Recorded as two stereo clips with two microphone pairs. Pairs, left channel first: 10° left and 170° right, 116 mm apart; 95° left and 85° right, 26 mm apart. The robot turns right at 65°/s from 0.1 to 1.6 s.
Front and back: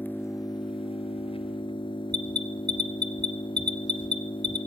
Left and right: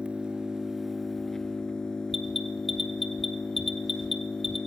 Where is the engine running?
60° right, 1.1 m; by 4.7 s 40° left, 1.1 m.